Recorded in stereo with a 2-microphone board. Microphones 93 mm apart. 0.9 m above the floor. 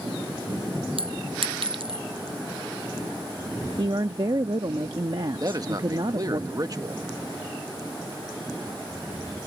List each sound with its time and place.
1.0 s a clink: 70° right (ahead or behind)
3.8 s a woman speaking: 60° right (ahead or behind)
5.4 s a man speaking: 40° right (ahead or behind)